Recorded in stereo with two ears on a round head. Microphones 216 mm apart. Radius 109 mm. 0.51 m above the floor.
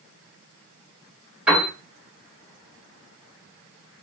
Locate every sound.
1.5 s a piano: 5° right (ahead or behind), 2.5 m